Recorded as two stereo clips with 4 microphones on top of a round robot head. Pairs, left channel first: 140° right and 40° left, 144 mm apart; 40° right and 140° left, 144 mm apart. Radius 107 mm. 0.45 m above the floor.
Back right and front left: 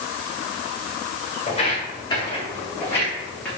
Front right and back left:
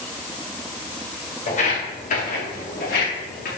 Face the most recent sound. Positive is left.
turn(degrees=-60)